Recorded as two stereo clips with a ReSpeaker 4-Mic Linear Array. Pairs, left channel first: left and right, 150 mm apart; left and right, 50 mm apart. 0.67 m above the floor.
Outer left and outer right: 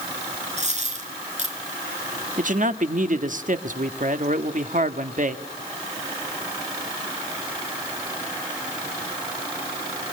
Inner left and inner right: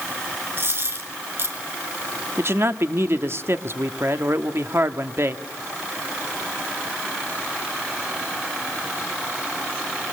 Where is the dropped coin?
45° right (ahead or behind), 5.5 m.